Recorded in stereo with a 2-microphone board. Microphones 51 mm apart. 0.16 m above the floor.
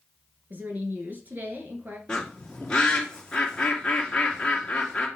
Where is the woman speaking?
40° right (ahead or behind), 2 m.